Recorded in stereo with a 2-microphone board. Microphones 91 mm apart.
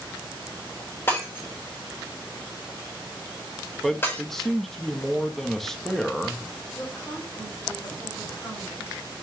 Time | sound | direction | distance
1.1 | breaking glass | 25° left (ahead or behind) | 3 m
3.8 | a man speaking | 5° left (ahead or behind) | 1.2 m
6.8 | a woman speaking | 30° left (ahead or behind) | 4 m